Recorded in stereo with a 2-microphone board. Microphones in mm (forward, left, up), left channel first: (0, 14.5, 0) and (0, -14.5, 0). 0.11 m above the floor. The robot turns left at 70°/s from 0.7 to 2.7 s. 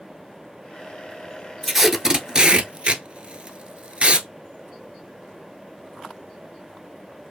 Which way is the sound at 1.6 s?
5° left (ahead or behind).